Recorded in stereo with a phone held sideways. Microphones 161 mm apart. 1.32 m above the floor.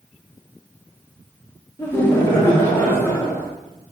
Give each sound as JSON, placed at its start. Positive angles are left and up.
{"t": 1.8, "sound": "laughter", "side_deg": 15, "distance_m": 2.0}